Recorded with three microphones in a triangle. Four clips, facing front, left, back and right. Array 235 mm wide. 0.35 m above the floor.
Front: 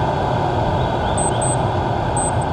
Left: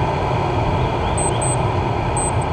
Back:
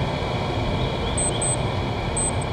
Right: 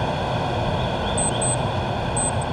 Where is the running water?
25° left, 1.6 m.